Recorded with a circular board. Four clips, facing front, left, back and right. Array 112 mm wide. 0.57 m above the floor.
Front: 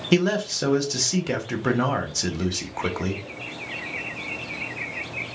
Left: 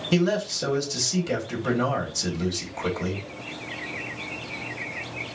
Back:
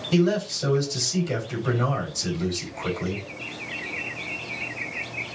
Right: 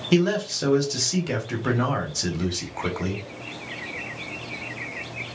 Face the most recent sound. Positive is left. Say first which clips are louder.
# right 2 dB, front 1 dB
turn(degrees=-20)